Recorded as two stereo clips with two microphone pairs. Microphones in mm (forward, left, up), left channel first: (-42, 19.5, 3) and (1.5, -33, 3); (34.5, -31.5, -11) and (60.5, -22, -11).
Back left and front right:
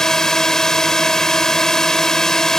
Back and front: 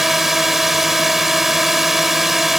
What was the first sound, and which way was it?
A drone, 65° left.